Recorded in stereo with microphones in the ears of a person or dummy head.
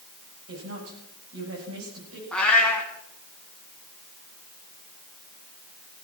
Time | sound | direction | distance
0.5 | a woman speaking | 80° right | 9 m
2.3 | a cat meowing | 5° left (ahead or behind) | 2.5 m